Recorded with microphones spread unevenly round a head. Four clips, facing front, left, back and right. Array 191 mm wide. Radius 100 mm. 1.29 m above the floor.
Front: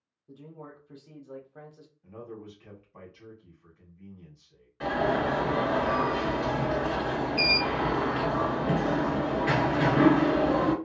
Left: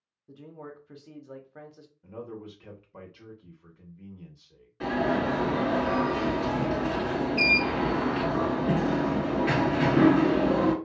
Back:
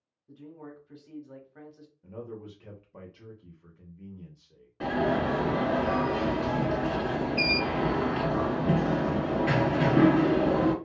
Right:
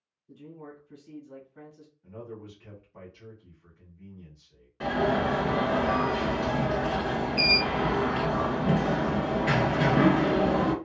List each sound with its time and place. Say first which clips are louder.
0.3 s a man speaking: left 1 dB, back 1 dB; 70° left, 0.8 m
2.0 s a man speaking: left 2 dB, back 2 dB; 150° left, 1.0 m
4.8 s an alarm: right 1 dB, even; 170° right, 1.4 m